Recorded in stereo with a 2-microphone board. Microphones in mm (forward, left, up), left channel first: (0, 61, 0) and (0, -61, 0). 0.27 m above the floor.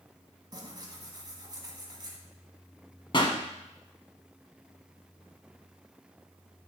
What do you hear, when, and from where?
0.5 s tearing paper: 35° right (ahead or behind), 1.3 m
3.1 s a pop: 40° left (ahead or behind), 1.1 m